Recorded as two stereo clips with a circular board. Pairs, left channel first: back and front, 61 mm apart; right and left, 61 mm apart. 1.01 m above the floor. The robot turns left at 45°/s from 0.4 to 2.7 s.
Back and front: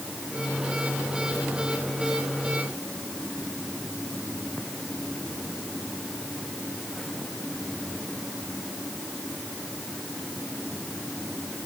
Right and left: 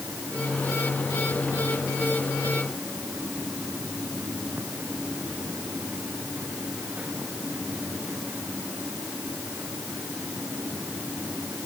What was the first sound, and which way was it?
Only background noise.